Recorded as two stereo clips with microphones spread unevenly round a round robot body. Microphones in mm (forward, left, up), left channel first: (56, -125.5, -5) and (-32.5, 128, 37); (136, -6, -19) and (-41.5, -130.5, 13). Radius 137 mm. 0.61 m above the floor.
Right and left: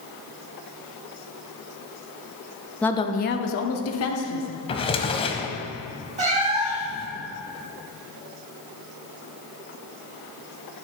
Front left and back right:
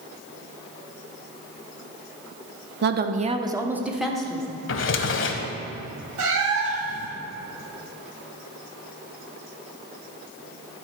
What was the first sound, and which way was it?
A woman speaking, 145° right.